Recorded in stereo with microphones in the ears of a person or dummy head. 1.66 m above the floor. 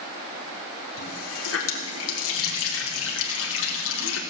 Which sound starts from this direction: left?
A running tap, at 1.0 s.